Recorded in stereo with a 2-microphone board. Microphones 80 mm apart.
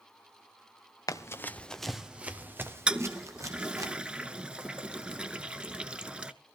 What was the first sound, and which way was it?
Running footsteps, 45° left (ahead or behind).